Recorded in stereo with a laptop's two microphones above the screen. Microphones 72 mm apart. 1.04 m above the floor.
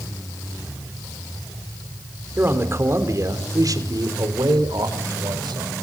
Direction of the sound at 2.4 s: 30° right (ahead or behind).